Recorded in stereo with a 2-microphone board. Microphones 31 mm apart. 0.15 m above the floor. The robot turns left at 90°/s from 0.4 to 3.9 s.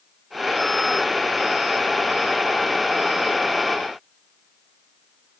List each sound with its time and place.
Only background noise.